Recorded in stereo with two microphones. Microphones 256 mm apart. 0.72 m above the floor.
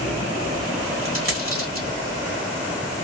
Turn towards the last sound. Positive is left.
turn(degrees=-60)  # may be behind; listen again after turning